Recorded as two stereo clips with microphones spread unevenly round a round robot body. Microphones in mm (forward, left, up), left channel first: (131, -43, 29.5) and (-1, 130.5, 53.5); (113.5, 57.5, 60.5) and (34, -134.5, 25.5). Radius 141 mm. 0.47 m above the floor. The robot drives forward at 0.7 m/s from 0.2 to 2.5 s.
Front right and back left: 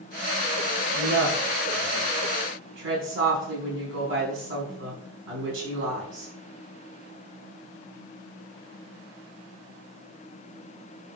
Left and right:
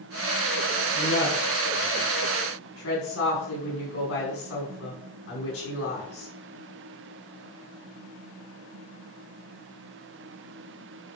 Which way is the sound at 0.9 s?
90° left.